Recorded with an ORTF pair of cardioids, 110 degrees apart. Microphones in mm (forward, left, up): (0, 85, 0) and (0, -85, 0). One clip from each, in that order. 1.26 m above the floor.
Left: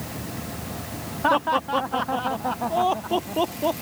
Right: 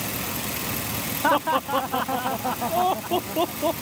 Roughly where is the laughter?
Ahead.